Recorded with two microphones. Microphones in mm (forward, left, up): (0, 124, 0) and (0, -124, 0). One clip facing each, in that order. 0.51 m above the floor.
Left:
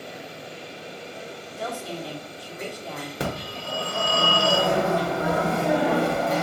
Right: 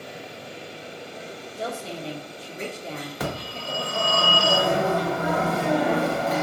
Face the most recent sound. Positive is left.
turn(degrees=30)  # may be behind; listen again after turning